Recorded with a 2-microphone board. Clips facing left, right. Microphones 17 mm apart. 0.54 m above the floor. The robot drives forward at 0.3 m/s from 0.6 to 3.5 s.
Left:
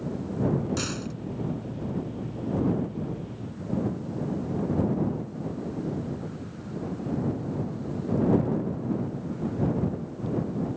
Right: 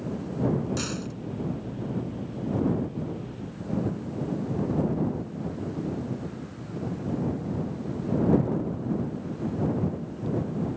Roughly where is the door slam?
Centre.